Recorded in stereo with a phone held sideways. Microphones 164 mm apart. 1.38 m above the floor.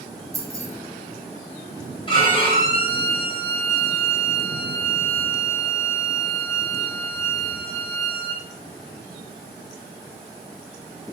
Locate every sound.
0.3 s keys jangling: 20° right (ahead or behind), 0.6 m
2.1 s a violin: 35° left (ahead or behind), 1.1 m